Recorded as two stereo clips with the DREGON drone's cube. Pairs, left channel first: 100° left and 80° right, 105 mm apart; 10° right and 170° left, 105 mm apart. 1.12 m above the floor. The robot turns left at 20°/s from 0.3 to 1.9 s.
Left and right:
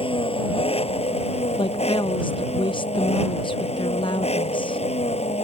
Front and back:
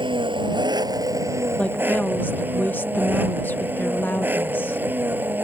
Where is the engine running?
130° left; by 5.5 s 95° left.